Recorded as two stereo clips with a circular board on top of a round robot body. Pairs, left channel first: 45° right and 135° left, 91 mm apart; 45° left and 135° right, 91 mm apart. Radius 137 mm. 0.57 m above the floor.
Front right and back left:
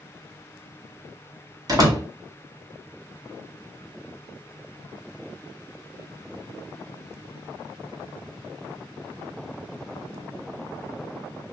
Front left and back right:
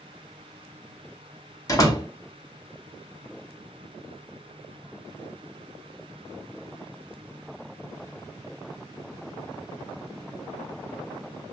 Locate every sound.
1.7 s a door slam: 95° left, 1.4 m